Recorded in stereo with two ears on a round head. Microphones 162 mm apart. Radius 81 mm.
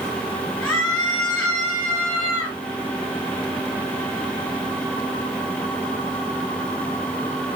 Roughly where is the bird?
No bird in this recording.